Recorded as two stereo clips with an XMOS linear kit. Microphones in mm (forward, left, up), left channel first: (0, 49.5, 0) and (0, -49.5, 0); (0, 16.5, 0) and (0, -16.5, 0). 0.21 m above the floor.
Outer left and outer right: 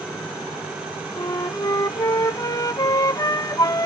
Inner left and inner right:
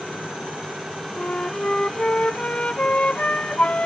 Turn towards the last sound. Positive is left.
turn(degrees=40)  # may be behind; listen again after turning